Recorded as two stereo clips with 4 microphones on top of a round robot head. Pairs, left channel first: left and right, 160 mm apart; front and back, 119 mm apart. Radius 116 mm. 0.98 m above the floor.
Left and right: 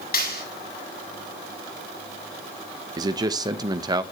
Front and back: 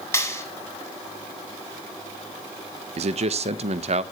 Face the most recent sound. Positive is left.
turn(degrees=-155)